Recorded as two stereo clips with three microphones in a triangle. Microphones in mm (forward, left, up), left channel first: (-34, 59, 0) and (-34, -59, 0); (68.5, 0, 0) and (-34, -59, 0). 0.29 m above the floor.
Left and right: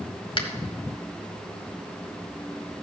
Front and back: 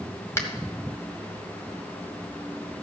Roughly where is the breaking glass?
No breaking glass in this recording.